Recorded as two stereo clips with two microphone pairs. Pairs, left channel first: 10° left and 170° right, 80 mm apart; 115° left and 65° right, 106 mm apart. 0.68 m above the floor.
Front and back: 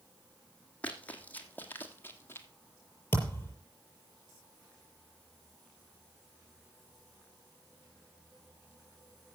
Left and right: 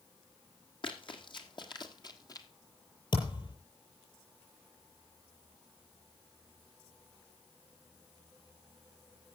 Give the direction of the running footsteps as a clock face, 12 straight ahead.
9 o'clock.